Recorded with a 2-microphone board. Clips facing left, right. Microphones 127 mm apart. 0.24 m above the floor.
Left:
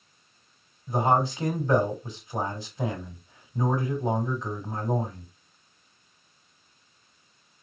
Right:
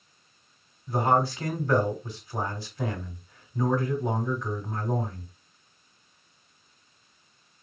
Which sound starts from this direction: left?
A man speaking, at 0.9 s.